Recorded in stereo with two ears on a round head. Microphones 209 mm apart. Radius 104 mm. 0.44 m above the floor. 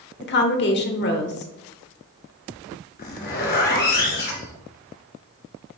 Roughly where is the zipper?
Left.